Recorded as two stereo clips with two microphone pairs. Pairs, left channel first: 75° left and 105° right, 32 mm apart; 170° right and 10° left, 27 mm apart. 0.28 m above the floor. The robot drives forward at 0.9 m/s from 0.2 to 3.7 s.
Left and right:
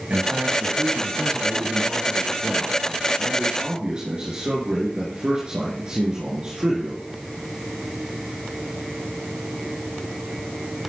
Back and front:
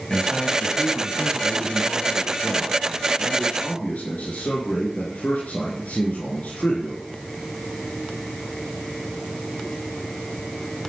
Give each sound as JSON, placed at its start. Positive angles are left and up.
{"t": 0.1, "sound": "a man speaking", "azimuth_deg": -110, "distance_m": 1.4}